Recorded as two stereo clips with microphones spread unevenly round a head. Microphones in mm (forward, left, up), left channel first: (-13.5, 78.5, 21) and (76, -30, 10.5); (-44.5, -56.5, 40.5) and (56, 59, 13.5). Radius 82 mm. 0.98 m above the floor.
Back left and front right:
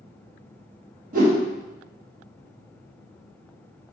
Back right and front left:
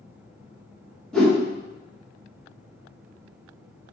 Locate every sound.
1.1 s a whoosh: 40° right, 0.8 m